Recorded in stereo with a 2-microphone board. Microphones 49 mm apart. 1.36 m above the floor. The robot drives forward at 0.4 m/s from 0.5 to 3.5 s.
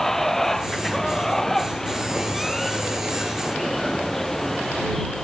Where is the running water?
5° left (ahead or behind).